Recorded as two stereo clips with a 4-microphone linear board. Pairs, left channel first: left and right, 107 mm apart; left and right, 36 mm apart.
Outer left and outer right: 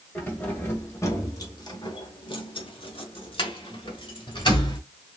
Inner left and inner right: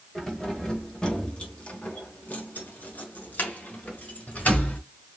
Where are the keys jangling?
15° left (ahead or behind), 1.5 m; by 4.8 s 45° left (ahead or behind), 1.8 m.